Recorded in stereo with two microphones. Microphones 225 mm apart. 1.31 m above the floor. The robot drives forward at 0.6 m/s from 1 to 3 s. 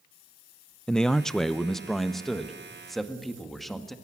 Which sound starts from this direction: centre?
A man speaking, at 0.9 s.